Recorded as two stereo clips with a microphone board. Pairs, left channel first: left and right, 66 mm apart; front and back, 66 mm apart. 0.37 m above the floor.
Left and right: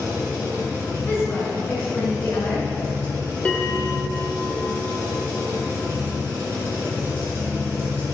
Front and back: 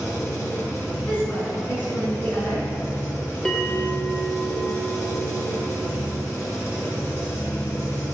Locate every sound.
0.0 s an engine running: 40° right, 1.6 m
1.1 s a woman speaking: 45° left, 1.9 m
3.5 s a bell: 55° left, 0.5 m